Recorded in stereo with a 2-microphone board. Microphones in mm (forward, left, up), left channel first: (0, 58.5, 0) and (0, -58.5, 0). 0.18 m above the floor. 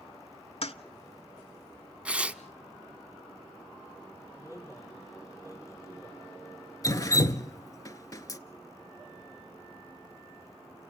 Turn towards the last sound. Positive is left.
turn(degrees=30)  # may be behind; listen again after turning